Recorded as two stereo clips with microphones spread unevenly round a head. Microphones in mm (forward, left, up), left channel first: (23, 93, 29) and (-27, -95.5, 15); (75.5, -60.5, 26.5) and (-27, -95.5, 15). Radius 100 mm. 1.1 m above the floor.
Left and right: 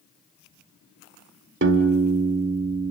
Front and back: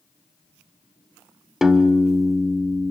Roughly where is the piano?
Right.